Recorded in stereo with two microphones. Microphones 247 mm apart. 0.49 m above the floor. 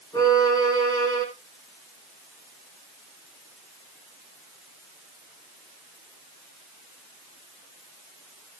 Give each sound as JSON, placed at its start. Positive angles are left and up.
{"t": 0.1, "sound": "a violin", "side_deg": 15, "distance_m": 4.5}